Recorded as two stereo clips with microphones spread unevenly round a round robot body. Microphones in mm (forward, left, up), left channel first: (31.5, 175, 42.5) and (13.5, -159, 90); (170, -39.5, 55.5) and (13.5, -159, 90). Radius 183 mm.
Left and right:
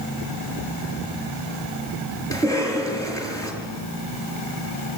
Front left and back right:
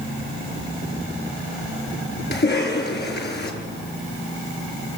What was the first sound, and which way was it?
A cough, 10° left.